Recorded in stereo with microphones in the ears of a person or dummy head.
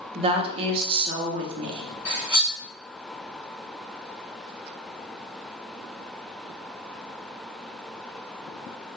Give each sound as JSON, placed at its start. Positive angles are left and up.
{"t": 0.1, "sound": "a woman speaking", "side_deg": -30, "distance_m": 0.5}
{"t": 2.0, "sound": "cutlery clinking", "side_deg": 10, "distance_m": 1.5}